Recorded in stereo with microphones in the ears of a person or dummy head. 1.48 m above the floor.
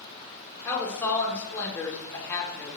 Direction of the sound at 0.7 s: 15° left (ahead or behind).